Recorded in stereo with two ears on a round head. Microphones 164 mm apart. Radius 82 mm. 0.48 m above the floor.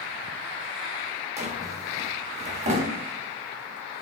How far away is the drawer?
About 0.9 m.